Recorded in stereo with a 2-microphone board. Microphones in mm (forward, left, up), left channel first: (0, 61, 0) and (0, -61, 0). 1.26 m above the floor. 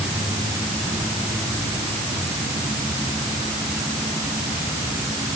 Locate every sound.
Only background noise.